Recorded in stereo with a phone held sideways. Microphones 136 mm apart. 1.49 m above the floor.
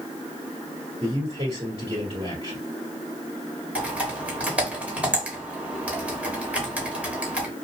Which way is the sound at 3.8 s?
10° right (ahead or behind).